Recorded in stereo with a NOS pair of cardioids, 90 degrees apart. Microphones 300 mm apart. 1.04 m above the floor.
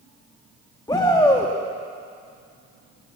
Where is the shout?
15° left, 1.5 m.